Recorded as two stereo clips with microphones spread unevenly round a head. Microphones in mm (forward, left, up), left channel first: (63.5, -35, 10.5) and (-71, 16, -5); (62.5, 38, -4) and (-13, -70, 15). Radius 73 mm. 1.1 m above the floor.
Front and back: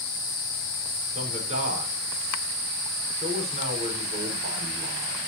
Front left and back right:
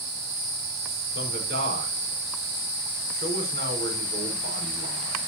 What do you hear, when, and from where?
1.1 s a man speaking: 160° right, 4.5 m